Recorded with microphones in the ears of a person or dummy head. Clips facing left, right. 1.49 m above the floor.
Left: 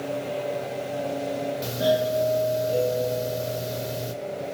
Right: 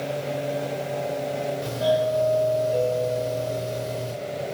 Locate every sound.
1.6 s a doorbell: 25° left (ahead or behind), 3.5 m